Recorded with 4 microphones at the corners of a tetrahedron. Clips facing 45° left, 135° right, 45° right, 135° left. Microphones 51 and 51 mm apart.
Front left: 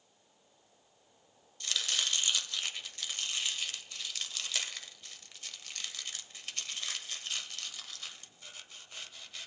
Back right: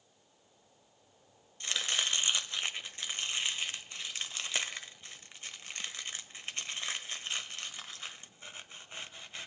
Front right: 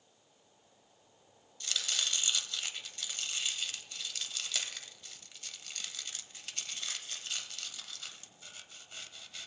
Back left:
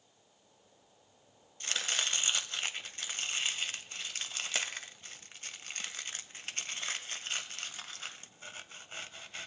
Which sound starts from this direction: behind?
Chopping, at 1.6 s.